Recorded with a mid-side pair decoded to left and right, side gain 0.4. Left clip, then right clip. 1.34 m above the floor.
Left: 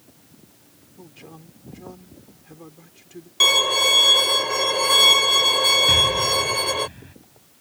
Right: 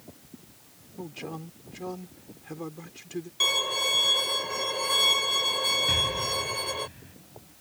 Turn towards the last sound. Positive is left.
turn(degrees=45)